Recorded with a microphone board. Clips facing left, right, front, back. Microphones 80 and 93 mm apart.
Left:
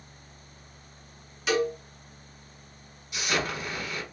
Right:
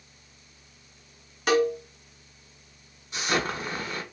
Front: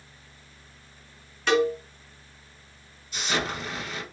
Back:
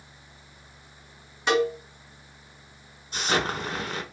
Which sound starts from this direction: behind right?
An explosion, at 3.1 s.